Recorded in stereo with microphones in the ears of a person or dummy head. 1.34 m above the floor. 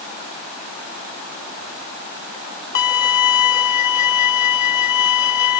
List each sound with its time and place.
2.8 s a violin: 50° left (ahead or behind)